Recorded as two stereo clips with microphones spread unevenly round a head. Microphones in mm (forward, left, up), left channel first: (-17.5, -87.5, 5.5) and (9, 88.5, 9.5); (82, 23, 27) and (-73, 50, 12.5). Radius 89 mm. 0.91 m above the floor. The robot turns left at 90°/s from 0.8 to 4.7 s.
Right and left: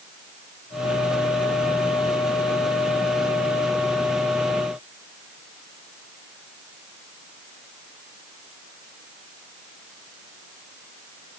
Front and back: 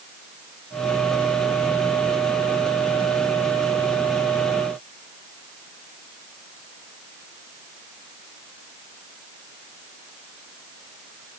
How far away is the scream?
No scream in this recording.